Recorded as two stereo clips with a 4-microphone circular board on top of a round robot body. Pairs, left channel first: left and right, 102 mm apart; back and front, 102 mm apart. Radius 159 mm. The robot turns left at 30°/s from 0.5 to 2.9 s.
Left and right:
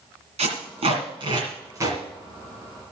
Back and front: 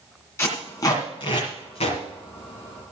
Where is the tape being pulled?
115° right, 1.9 m; by 2.0 s 155° right, 1.9 m.